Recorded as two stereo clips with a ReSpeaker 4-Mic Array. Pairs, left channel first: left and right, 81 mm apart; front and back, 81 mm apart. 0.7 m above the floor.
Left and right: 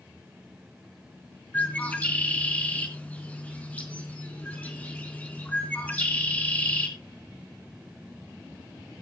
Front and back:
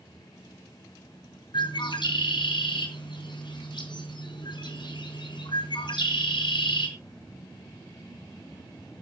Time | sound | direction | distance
1.5 | a bird | 20° left | 4 m